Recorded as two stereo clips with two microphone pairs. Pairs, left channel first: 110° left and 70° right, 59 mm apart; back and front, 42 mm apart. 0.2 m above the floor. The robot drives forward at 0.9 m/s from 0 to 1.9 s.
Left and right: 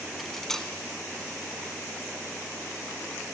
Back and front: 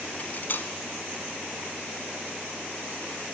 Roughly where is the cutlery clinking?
Behind.